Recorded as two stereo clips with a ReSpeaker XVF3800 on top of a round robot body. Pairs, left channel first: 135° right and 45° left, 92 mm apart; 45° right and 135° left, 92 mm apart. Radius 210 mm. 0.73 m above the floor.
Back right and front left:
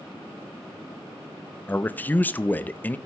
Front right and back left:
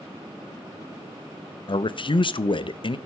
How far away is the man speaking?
About 0.8 m.